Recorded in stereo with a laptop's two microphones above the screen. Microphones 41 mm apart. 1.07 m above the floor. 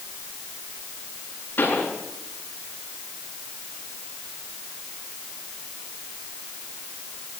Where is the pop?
50° left (ahead or behind), 10 m.